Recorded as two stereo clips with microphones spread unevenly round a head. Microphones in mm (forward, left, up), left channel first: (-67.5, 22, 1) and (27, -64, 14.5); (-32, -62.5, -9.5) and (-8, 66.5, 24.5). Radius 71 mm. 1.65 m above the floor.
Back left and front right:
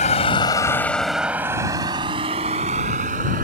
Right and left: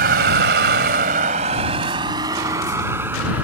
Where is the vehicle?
85° left; by 3.5 s straight ahead.